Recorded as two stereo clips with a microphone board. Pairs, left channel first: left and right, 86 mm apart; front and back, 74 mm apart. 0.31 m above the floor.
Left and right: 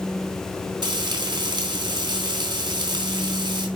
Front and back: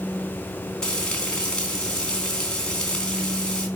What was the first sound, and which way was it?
Frying, 80° right.